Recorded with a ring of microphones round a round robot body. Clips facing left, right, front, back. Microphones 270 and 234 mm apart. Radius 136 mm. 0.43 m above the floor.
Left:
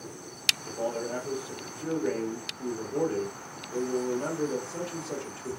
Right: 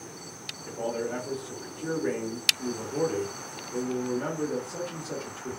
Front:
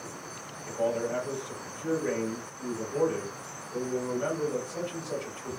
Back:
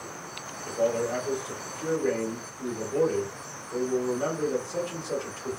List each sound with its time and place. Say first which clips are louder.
0.7 s a man speaking: right 1 dB, back 3 dB; 150° right, 1.8 m